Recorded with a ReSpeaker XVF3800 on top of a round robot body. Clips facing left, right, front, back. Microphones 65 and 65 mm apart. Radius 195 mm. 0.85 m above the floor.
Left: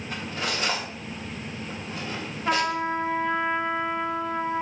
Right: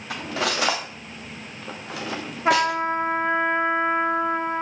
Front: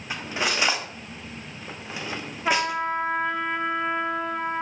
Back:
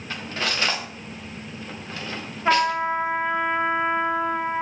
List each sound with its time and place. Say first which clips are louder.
0.1 s cutlery clinking: right 5 dB, front 1 dB; 75° right, 1.0 m
2.5 s a trumpet: right 5 dB, back 4 dB; 110° right, 1.1 m